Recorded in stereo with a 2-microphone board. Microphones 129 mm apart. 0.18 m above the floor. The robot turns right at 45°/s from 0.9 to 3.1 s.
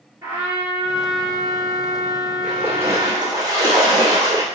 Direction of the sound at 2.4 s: 5° right (ahead or behind).